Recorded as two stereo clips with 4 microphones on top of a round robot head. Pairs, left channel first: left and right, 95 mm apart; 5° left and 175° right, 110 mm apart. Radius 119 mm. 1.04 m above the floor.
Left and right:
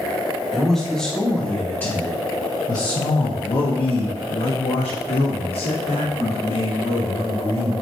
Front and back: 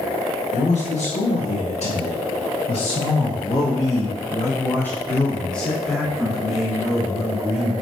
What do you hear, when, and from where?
0.5 s a man speaking: straight ahead, 2 m; by 7.7 s 100° left, 3.5 m